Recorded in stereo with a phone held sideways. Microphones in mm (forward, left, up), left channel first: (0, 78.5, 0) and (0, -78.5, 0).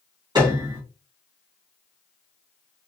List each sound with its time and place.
0.3 s a piano: 25° right (ahead or behind), 1.5 m